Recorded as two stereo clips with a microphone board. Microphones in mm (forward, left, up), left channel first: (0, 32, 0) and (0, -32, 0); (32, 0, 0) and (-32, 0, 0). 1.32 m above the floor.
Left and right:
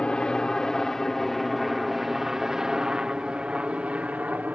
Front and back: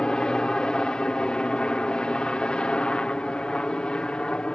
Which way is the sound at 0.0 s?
50° left.